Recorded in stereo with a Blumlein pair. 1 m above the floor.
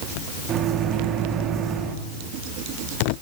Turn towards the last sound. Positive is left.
turn(degrees=-30)